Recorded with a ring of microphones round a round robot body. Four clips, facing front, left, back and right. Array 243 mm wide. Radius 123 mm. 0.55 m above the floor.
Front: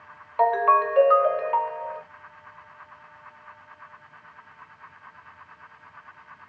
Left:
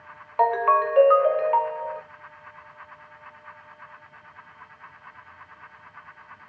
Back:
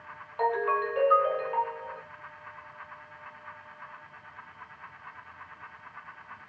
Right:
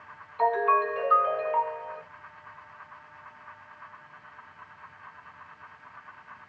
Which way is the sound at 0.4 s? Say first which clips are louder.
Left 4 dB, front 8 dB; 65° left.